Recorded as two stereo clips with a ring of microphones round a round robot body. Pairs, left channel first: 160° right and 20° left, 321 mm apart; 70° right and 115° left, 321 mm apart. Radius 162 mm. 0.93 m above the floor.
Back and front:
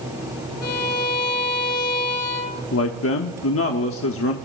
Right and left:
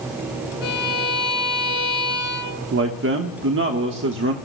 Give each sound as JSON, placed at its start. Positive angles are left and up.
{"t": 0.6, "sound": "a violin", "azimuth_deg": -95, "distance_m": 3.5}
{"t": 2.7, "sound": "a man speaking", "azimuth_deg": 160, "distance_m": 1.3}